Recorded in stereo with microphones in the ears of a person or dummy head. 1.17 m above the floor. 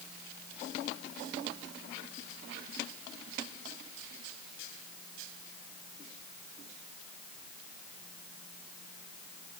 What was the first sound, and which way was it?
Only background noise.